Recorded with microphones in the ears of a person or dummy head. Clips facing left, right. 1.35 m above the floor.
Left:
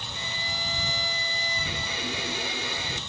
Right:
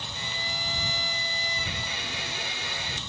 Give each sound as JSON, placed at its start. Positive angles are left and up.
{"t": 0.1, "sound": "a violin", "side_deg": 85}